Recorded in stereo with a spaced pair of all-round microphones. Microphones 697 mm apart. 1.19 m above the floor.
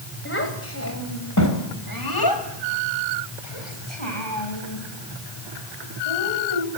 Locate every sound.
0.2 s a child speaking: 15° left (ahead or behind), 4.5 m; by 6.7 s 55° left (ahead or behind), 6 m